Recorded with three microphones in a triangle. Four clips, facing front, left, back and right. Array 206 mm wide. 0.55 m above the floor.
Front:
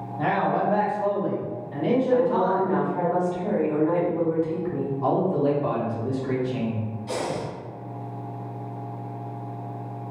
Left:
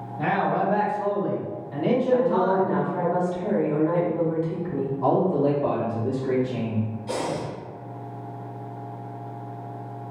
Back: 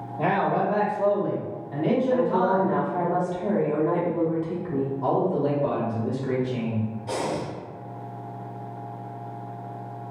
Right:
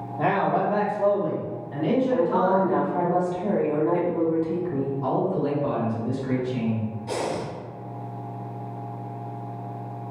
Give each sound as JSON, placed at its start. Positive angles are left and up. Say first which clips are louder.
{"t": 0.2, "sound": "a man speaking", "louder": "right 1 dB, even", "azimuth_deg": -110, "distance_m": 1.1}
{"t": 2.1, "sound": "a woman speaking", "louder": "left 1 dB, front 1 dB", "azimuth_deg": -130, "distance_m": 0.8}
{"t": 5.0, "sound": "a man speaking", "louder": "left 5 dB, front 2 dB", "azimuth_deg": 65, "distance_m": 0.9}
{"t": 7.1, "sound": "breathing", "louder": "right 2 dB, front 1 dB", "azimuth_deg": -150, "distance_m": 1.3}